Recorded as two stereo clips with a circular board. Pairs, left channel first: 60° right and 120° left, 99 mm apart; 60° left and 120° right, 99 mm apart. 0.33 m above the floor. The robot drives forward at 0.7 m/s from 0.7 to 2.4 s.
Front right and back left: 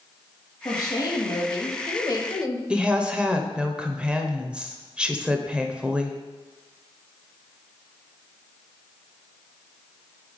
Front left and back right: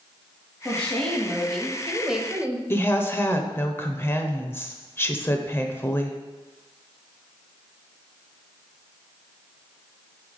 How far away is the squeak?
I don't hear a squeak.